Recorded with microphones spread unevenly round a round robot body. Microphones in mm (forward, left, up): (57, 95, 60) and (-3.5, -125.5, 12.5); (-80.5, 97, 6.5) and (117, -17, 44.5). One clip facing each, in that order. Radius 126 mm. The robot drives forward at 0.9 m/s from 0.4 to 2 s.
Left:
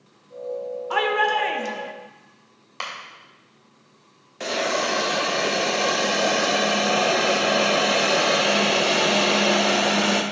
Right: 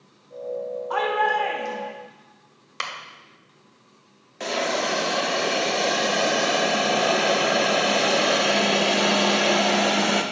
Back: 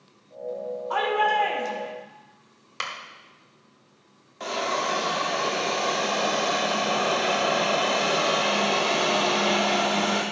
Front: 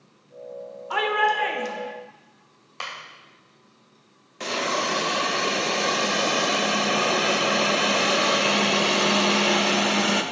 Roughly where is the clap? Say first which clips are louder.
Even, even; behind right.